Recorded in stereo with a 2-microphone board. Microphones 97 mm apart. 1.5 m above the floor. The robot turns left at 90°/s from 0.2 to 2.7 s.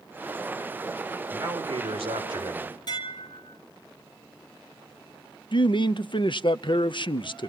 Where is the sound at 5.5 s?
55° left (ahead or behind), 0.6 m.